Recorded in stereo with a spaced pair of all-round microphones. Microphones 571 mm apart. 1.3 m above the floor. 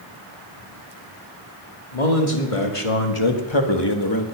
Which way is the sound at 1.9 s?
75° left (ahead or behind).